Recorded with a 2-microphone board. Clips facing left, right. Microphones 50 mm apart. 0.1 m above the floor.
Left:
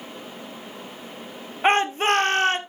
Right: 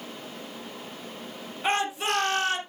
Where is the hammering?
No hammering in this recording.